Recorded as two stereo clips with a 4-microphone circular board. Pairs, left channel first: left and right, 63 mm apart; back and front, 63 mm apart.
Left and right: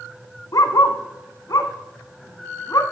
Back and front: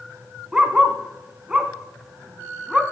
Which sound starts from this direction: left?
A dog barking, at 0.5 s.